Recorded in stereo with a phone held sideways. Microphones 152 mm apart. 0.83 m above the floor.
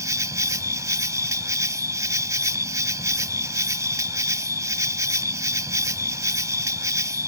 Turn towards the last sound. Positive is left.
turn(degrees=-25)  # may be behind; listen again after turning